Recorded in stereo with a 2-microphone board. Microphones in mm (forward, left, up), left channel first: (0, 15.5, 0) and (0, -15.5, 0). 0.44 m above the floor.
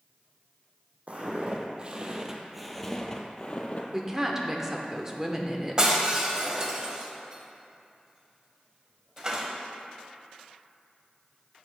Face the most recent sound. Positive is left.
turn(degrees=-25)  # may be behind; listen again after turning